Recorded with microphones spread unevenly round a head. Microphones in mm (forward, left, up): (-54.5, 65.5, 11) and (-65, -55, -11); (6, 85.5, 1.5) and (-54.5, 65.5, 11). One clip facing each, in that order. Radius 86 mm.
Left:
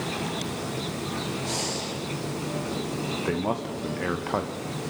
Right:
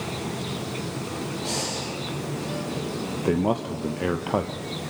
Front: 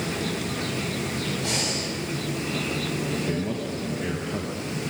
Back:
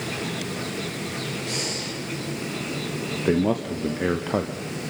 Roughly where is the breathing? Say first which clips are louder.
Right 1 dB, front 2 dB; ahead.